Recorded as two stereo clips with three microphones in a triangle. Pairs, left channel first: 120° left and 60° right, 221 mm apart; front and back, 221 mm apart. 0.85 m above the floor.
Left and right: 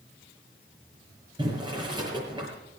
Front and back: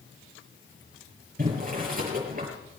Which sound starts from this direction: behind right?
Boiling, at 1.4 s.